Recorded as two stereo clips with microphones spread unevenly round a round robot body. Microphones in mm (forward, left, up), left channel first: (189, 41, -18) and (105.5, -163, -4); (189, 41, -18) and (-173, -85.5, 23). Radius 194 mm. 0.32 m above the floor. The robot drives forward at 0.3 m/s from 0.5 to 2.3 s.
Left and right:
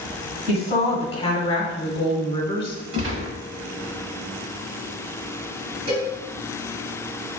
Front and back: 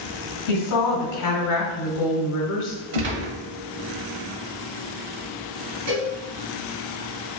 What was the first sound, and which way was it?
A woman speaking, 15° left.